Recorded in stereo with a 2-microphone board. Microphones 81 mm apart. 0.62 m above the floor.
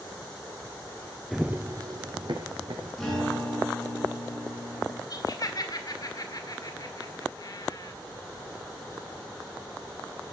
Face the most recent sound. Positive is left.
turn(degrees=50)  # may be behind; listen again after turning